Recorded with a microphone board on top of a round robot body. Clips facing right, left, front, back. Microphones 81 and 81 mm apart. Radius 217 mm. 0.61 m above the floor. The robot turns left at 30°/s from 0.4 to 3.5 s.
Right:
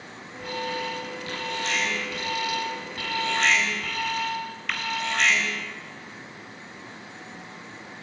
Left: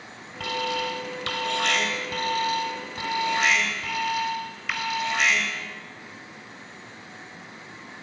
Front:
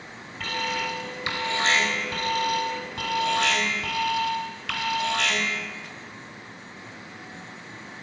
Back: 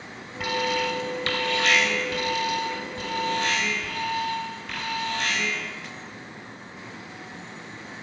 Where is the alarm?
100° left, 3 m; by 5.7 s 5° left, 3 m.